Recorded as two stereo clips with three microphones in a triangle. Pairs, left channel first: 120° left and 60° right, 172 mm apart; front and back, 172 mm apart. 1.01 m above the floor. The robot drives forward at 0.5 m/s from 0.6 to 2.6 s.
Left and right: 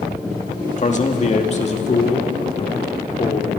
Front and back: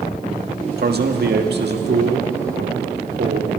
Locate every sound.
0.8 s a man speaking: 165° left, 1.7 m; by 3.6 s 170° left, 2.5 m